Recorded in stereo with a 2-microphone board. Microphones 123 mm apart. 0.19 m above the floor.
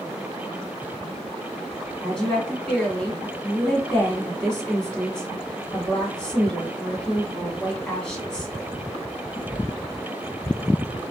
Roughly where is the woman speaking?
Centre.